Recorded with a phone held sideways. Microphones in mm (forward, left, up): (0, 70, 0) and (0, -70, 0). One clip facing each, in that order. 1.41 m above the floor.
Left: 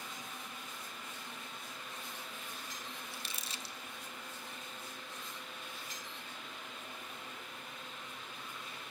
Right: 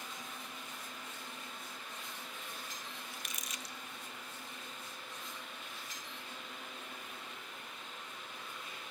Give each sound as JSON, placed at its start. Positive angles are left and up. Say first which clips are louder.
{"t": 3.1, "sound": "crumpling", "louder": "even", "side_deg": 30, "distance_m": 0.5}